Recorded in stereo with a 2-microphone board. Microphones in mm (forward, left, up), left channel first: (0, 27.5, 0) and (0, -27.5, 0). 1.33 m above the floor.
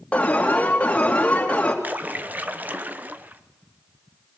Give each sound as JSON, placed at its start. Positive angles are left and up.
{"t": 0.1, "sound": "an alarm", "side_deg": 20, "distance_m": 2.5}
{"t": 1.8, "sound": "a splash", "side_deg": -35, "distance_m": 1.0}